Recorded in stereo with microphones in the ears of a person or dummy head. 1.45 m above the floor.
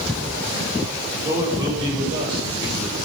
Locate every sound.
1.2 s a man speaking: 20° right (ahead or behind), 7 m